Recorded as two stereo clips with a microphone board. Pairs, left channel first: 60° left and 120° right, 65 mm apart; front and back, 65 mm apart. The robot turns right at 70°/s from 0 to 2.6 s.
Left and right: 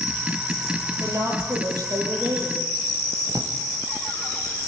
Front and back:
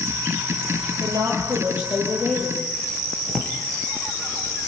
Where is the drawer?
95° right, 2.5 m.